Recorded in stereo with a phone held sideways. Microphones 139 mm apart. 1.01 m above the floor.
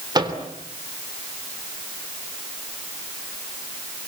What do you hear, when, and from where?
0.1 s a microwave: 30° right (ahead or behind), 3 m